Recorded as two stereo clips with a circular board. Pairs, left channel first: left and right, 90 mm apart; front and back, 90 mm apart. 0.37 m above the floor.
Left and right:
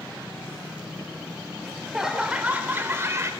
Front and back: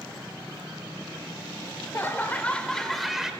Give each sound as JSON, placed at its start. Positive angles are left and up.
{"t": 1.6, "sound": "laughter", "azimuth_deg": 5, "distance_m": 1.5}